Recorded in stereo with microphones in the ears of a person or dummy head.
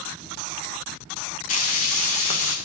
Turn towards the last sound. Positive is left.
turn(degrees=35)  # may be behind; listen again after turning